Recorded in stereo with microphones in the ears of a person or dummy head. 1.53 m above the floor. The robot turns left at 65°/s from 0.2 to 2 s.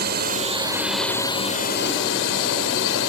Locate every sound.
0.0 s a drone: 125° right; by 3.1 s 115° left